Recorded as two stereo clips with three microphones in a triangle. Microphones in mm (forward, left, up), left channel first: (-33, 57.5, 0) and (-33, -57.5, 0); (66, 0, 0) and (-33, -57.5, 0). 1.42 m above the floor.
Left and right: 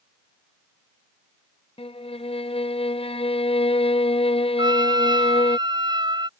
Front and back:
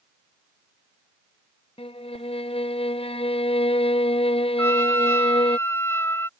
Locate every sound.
1.8 s a violin: 60° left
4.6 s a trumpet: 40° right